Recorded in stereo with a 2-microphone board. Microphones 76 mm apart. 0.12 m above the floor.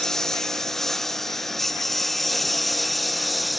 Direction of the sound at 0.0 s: 5° left (ahead or behind).